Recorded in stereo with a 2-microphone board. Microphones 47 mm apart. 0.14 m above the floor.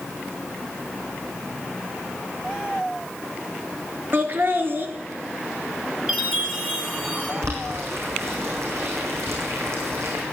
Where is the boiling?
75° right (ahead or behind), 4 m.